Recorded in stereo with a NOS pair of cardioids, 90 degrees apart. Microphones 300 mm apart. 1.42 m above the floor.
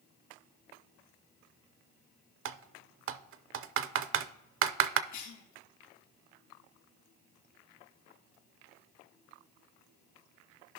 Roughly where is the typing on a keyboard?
Ahead right.